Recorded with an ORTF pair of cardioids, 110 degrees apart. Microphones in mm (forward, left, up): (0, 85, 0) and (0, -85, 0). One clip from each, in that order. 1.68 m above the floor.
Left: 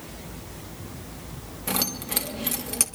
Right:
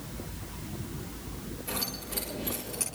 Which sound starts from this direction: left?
Keys jangling, at 1.7 s.